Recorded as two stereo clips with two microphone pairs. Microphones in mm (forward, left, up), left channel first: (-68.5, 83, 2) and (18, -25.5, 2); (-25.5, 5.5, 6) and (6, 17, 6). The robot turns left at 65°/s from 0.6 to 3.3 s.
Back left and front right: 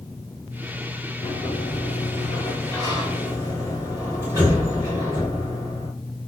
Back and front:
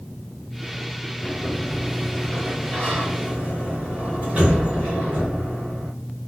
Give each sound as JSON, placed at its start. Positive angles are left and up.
{"t": 1.2, "sound": "a sliding door", "azimuth_deg": 145, "distance_m": 2.0}